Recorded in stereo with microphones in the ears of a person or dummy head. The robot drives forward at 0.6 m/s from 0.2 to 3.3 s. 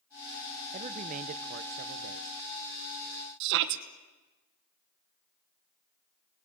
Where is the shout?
60° right (ahead or behind), 1.3 m.